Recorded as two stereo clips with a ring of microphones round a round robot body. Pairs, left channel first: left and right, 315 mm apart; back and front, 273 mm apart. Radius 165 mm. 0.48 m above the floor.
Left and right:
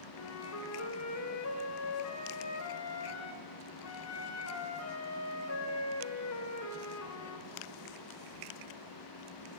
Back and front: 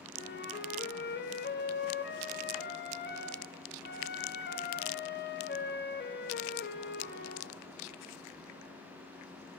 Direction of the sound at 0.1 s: 130° left.